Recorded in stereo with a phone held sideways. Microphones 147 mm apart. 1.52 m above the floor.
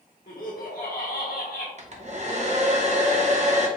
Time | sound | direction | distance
0.3 | laughter | 75° left (ahead or behind) | 1.1 m
1.8 | a hair dryer | 50° right (ahead or behind) | 0.8 m